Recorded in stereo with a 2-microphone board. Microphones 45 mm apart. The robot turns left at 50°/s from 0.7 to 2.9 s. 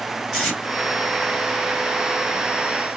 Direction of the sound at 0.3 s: 5° right (ahead or behind).